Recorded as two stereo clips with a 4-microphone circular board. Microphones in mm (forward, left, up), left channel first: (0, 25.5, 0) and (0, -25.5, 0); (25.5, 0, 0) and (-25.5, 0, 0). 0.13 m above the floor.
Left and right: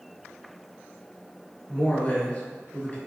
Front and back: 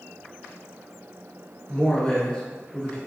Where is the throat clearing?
I don't hear throat clearing.